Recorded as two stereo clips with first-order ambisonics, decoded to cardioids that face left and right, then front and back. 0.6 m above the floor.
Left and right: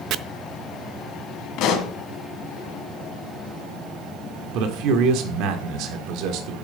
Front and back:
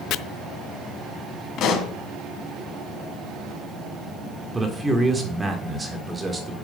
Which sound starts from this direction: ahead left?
A pop, at 1.6 s.